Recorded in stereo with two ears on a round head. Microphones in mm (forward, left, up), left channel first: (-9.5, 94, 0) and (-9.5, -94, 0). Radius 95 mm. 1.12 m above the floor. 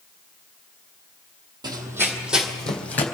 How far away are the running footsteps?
About 1.6 m.